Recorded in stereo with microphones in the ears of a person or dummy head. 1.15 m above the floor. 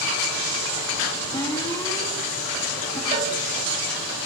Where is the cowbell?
35° right (ahead or behind), 2.0 m.